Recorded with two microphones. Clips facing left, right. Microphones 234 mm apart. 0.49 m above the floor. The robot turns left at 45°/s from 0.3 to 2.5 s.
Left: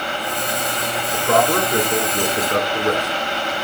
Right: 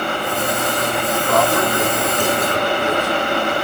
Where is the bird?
I don't hear a bird.